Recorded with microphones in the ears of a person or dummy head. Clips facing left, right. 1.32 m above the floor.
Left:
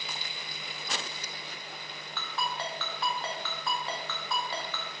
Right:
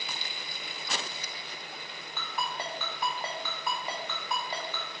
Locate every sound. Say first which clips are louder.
2.2 s a ringtone: left 1 dB; 15° right (ahead or behind), 0.6 m